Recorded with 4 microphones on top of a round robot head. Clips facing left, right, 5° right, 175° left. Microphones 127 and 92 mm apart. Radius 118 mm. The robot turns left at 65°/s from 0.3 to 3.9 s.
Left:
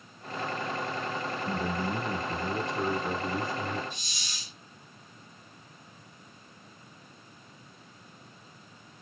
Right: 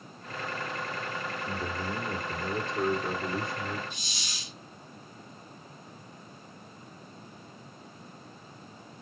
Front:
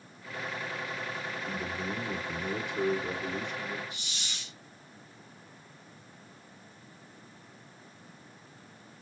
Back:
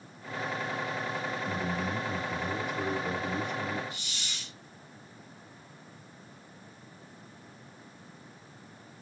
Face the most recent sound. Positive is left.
turn(degrees=-80)